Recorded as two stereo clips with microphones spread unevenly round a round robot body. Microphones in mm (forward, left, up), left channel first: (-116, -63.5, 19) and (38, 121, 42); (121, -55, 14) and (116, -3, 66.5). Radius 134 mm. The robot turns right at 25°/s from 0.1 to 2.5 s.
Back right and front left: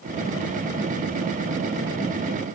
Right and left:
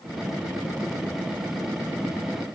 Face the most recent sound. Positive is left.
No sound to turn to.